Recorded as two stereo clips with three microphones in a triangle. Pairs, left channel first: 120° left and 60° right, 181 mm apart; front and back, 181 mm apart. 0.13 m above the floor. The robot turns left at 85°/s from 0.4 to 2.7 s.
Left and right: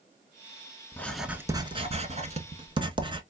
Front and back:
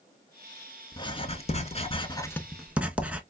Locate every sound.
0.9 s writing: 50° left, 0.6 m; by 3.2 s 100° right, 0.6 m